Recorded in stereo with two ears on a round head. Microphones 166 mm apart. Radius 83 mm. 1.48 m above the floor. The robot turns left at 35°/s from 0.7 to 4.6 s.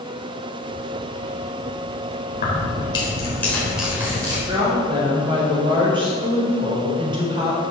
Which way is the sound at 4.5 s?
25° right (ahead or behind).